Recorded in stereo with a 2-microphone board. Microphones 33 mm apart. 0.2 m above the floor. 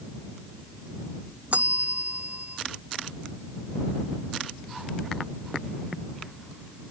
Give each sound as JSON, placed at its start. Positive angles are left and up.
{"t": 1.5, "sound": "a bell", "side_deg": -55}